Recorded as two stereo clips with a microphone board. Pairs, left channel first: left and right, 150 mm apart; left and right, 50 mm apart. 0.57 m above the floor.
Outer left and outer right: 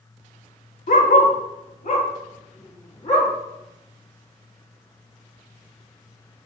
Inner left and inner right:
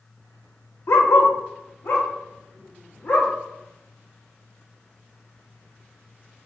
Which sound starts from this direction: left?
A dog barking, at 0.9 s.